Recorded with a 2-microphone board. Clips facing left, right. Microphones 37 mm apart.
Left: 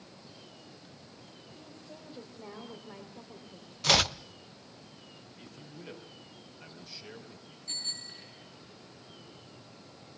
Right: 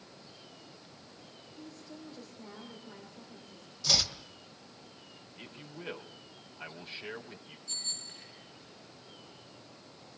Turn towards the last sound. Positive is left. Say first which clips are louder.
# left 2 dB
turn(degrees=40)  # may be behind; listen again after turning